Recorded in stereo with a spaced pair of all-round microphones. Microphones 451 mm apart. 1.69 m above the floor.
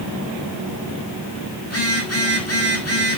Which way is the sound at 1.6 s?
30° left (ahead or behind).